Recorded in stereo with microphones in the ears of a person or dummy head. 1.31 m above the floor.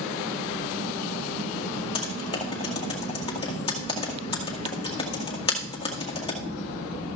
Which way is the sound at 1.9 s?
25° left (ahead or behind).